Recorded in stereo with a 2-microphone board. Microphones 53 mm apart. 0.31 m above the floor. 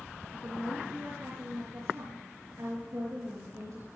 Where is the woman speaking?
80° right, 5 m.